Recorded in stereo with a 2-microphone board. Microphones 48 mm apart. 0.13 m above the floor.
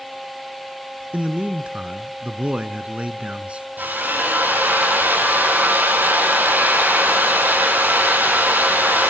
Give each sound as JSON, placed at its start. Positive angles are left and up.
{"t": 1.1, "sound": "a man speaking", "side_deg": -30, "distance_m": 1.2}
{"t": 3.8, "sound": "a drill", "side_deg": -40, "distance_m": 5.0}